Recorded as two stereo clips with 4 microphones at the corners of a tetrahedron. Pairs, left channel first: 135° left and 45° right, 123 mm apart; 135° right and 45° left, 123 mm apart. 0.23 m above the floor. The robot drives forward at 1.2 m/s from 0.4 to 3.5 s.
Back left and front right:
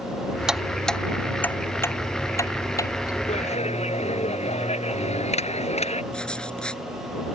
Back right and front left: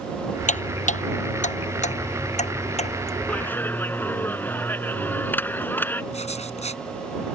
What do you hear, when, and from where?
0.5 s ticking: 130° right; by 3.2 s 165° right
3.3 s a clap: 150° left
6.1 s writing: 145° right